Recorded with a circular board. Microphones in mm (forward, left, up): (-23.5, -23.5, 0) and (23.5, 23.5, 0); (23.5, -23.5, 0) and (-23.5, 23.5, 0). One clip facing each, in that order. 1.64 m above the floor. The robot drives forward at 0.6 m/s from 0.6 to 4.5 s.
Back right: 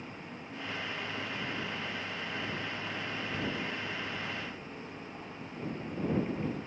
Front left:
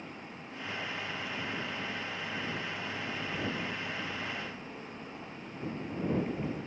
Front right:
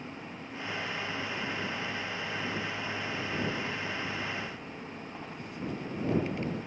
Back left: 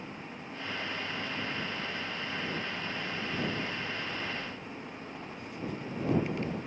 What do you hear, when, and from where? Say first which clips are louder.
3.1 s a child speaking: even, even; 110° left, 5.5 m; by 6.6 s 120° left, 5.5 m